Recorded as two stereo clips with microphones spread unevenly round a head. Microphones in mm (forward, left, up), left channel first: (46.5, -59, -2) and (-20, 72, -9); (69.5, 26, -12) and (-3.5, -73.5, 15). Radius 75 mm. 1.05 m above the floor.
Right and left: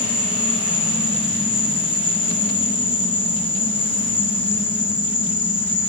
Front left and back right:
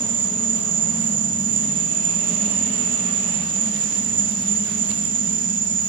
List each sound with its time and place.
0.0 s an insect: 130° right, 1.5 m